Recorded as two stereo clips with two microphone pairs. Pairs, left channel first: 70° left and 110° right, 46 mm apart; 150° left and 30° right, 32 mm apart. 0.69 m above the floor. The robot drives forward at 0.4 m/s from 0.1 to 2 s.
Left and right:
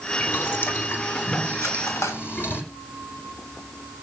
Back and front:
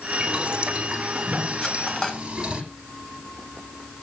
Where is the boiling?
30° left, 9.5 m.